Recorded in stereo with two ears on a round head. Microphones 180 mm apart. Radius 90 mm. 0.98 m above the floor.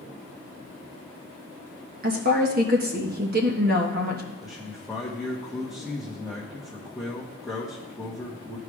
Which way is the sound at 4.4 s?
Centre (ahead or behind).